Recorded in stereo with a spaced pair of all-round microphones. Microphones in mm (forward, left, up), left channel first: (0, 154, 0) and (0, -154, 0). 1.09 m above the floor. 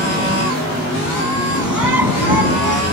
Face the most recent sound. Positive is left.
turn(degrees=85)